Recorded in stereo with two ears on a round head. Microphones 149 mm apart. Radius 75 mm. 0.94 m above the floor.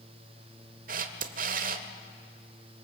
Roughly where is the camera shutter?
Right.